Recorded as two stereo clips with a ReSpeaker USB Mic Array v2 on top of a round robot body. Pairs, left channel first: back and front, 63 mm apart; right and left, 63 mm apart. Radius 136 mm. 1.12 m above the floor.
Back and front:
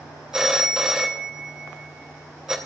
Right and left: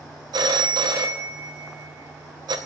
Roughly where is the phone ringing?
Left.